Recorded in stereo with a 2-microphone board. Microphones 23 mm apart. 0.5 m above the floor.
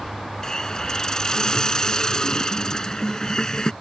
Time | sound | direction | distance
0.4 | a hiss | 35° left (ahead or behind) | ?